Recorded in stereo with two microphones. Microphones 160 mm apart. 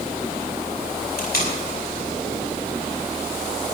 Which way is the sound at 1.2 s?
80° left.